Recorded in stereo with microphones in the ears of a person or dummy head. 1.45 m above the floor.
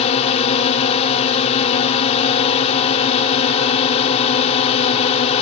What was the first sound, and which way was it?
A drone, 35° left (ahead or behind).